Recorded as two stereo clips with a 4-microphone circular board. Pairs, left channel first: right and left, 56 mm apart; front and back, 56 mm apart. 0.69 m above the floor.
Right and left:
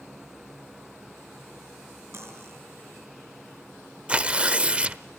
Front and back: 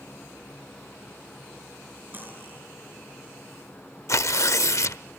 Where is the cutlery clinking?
130° left, 7 m.